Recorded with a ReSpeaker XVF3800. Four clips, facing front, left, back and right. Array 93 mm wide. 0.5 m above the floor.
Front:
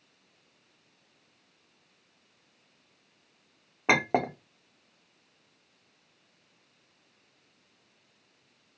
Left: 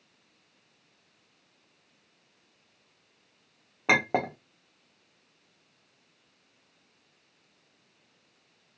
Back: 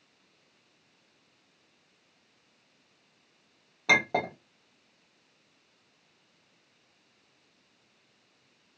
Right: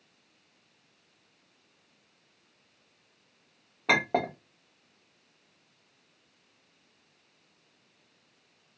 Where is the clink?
25° left, 0.8 m.